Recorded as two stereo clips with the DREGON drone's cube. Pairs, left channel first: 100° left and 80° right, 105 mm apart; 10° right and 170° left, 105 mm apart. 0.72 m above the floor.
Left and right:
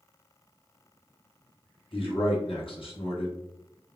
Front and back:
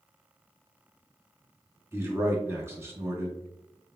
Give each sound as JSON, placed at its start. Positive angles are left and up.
{"t": 1.9, "sound": "a man speaking", "azimuth_deg": 110, "distance_m": 1.2}